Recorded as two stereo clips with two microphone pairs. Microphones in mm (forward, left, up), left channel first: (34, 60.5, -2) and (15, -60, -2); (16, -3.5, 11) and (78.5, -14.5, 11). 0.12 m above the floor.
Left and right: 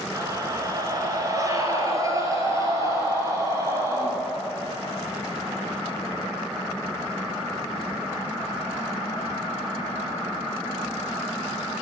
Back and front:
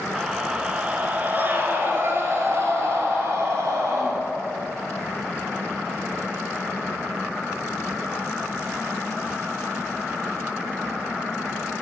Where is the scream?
85° right, 1.3 m; by 4.1 s 35° right, 3 m.